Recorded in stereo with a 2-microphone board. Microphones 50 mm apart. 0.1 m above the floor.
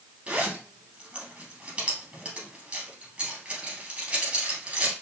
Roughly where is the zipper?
Right.